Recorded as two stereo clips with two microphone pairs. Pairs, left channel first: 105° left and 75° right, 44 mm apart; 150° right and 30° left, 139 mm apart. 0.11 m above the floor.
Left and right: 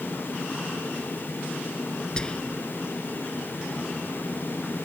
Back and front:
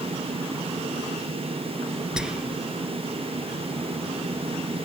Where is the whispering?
110° left.